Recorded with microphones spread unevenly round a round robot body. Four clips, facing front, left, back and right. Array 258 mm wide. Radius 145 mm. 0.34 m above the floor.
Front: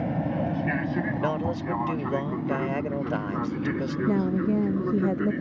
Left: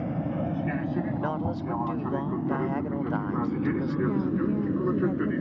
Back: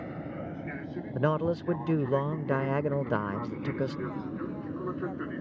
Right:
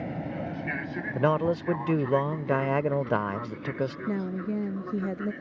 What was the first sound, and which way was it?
An aircraft, 20° left.